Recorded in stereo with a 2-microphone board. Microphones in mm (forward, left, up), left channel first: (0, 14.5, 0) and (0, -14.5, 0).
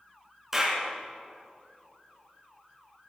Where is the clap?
15° right (ahead or behind), 2.5 m.